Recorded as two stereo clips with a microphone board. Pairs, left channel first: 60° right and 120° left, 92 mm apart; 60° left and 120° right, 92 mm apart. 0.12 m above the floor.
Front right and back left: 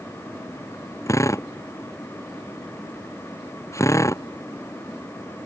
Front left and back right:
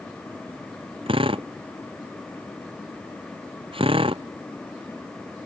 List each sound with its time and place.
1.1 s a drill: 115° right